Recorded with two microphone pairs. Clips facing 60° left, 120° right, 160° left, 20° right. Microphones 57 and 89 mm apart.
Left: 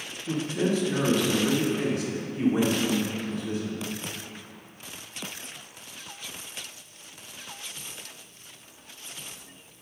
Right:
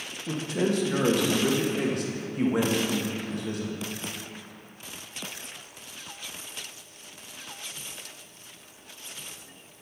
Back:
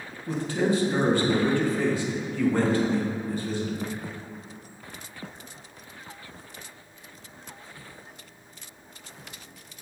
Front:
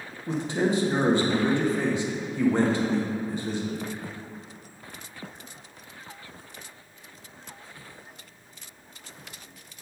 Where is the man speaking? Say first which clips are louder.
Left 1 dB, even; 90° right, 1.3 m.